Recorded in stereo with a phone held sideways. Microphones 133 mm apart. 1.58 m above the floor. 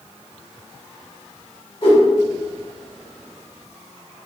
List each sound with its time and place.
1.8 s a whoosh: 40° left (ahead or behind), 1.2 m